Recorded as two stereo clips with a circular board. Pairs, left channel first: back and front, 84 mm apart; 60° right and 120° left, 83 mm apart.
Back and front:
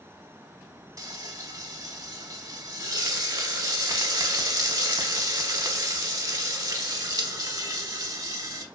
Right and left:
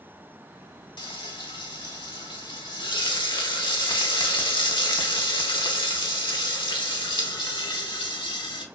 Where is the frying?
45° right, 0.5 m.